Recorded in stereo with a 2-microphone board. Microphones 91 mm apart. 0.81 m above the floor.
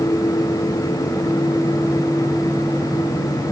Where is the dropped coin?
No dropped coin in this recording.